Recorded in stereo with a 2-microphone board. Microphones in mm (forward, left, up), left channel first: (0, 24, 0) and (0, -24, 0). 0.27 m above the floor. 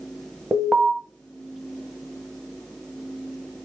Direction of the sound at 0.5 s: 25° right (ahead or behind).